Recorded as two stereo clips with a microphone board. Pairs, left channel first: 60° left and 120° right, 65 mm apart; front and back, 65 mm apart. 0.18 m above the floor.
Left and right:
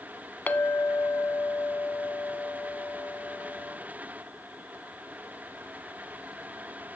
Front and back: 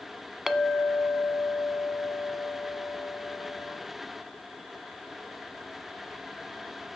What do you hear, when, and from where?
0.5 s a clink: 95° left, 0.7 m